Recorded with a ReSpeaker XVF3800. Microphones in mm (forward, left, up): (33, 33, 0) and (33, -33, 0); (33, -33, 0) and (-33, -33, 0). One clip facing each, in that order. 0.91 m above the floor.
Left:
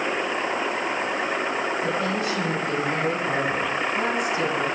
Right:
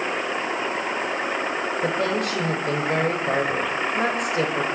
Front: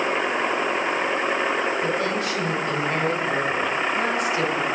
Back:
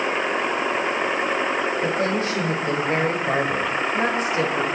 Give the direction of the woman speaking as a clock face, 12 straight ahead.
4 o'clock.